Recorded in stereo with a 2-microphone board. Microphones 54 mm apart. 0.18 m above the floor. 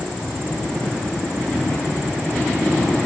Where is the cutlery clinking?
I don't hear cutlery clinking.